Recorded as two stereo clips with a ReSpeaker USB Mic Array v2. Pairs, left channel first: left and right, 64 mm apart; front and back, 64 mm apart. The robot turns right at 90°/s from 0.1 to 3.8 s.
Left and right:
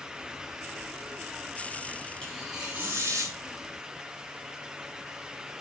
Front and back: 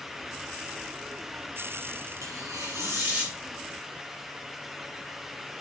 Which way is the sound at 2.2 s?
160° left.